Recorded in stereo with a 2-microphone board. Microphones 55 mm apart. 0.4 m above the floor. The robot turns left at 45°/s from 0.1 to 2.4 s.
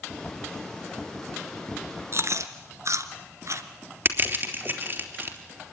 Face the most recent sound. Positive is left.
turn(degrees=-40)  # may be behind; listen again after turning